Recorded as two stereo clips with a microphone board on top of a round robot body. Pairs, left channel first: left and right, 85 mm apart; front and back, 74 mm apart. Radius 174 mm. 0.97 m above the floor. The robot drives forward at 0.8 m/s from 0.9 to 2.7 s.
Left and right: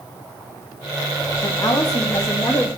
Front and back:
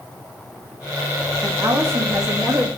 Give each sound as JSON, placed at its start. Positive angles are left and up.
{"t": 1.4, "sound": "a woman speaking", "azimuth_deg": 120, "distance_m": 2.0}